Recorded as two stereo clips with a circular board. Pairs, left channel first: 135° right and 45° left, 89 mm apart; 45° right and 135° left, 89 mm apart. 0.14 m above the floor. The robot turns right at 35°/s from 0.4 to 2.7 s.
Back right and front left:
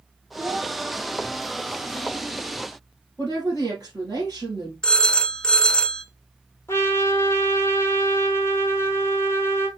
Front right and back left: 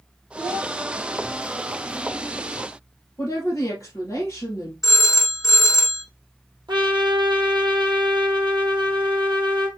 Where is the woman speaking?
10° left, 2.5 m.